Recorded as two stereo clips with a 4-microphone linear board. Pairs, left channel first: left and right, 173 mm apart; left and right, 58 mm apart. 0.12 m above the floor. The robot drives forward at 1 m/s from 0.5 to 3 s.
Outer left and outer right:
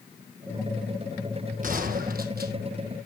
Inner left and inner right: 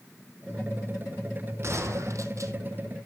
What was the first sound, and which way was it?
A gunshot, 50° right (ahead or behind).